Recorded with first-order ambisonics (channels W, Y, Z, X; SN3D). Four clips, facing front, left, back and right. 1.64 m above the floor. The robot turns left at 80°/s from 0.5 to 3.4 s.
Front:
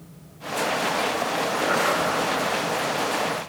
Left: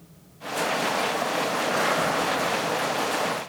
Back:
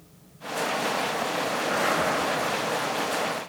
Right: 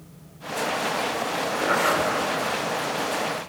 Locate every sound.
1.6 s a zipper: 50° right, 5 m; by 2.1 s 95° right, 5 m